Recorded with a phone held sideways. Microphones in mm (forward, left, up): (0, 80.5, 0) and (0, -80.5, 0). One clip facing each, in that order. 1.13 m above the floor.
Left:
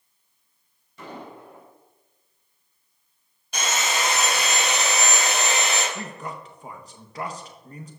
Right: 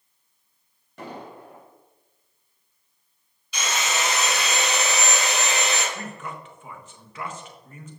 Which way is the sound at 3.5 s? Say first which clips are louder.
Left 1 dB; 55° left (ahead or behind).